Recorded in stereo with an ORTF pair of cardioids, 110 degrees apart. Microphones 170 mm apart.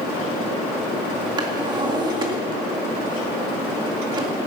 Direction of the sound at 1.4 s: 25° right.